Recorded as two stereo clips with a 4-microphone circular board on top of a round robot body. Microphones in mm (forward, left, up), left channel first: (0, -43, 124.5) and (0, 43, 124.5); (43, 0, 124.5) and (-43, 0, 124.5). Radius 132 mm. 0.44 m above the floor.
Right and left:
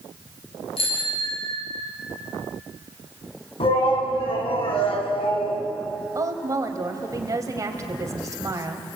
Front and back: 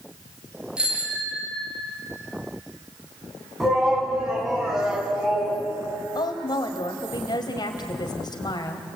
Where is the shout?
95° right, 5.5 m.